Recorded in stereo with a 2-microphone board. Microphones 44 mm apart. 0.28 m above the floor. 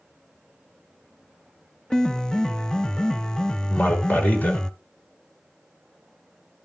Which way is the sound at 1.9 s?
15° left (ahead or behind).